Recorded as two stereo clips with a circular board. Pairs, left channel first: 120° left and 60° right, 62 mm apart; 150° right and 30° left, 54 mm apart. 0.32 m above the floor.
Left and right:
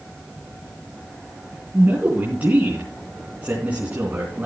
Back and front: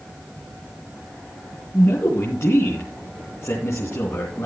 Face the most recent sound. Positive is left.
turn(degrees=-125)